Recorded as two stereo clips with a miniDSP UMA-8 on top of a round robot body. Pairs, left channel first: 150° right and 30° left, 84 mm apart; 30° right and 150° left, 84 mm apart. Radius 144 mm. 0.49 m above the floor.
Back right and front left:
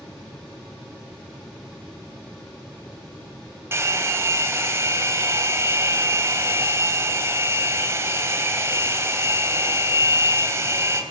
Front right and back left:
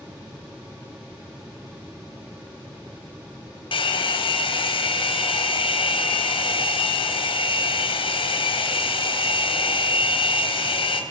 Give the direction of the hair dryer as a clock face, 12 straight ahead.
1 o'clock.